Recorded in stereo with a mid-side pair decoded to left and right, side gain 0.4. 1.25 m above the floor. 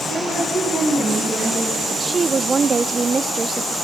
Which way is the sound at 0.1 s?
60° right.